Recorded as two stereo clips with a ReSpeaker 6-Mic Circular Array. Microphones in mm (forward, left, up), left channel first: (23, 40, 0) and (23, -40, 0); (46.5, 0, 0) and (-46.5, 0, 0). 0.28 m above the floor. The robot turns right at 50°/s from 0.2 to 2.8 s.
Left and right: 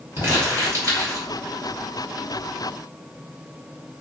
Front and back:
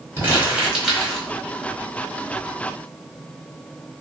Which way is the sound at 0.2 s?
130° right.